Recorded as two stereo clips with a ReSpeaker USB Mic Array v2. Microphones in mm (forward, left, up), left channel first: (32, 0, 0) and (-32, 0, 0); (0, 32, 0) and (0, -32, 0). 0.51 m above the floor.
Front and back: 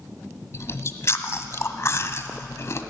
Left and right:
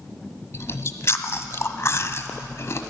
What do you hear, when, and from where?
0.5 s chewing: 45° left, 1.1 m